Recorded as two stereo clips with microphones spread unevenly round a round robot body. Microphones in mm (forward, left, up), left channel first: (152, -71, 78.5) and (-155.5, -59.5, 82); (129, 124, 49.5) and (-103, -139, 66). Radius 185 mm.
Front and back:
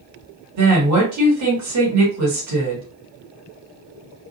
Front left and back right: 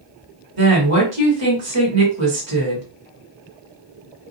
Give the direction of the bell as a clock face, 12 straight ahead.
No bell in this recording.